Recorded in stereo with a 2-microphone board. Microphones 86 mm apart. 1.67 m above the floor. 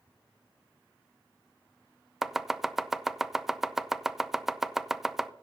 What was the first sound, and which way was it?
Chopping, 5° right (ahead or behind).